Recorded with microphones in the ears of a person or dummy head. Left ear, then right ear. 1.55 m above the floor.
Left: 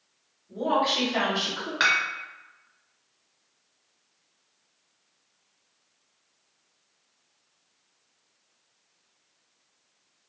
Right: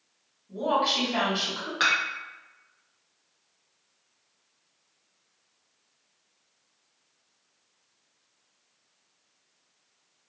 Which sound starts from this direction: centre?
Dishes clattering, at 1.8 s.